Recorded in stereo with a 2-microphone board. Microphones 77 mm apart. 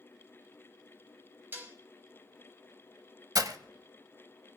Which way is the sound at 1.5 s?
25° right (ahead or behind).